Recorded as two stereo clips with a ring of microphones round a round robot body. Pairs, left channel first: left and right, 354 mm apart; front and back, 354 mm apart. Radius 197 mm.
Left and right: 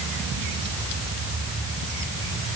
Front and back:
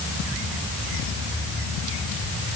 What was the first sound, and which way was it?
Only background noise.